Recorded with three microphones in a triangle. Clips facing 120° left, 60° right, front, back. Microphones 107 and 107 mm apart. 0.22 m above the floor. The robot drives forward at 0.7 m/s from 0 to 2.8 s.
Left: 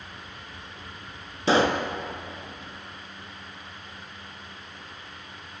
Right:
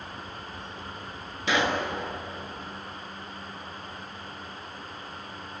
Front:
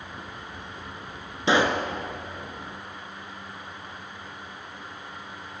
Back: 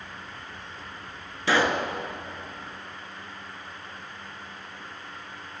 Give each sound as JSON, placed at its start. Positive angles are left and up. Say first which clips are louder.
{"t": 1.5, "sound": "a pop", "louder": "left 5 dB, front 1 dB", "azimuth_deg": 65, "distance_m": 1.0}